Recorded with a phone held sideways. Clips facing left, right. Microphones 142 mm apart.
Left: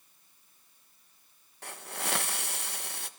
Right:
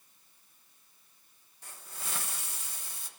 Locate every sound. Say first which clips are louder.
1.6 s a hiss: left 9 dB; 70° left (ahead or behind), 1.2 m